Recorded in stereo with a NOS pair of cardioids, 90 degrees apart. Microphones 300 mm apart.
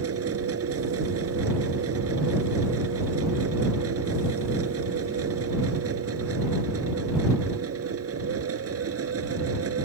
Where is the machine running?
50° right.